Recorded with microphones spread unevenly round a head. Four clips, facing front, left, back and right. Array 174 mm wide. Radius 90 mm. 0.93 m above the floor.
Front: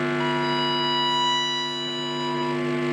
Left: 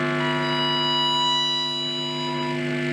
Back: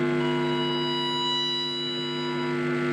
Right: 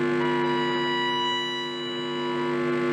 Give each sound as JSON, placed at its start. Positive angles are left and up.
{"t": 0.2, "sound": "a violin", "azimuth_deg": 0, "distance_m": 1.3}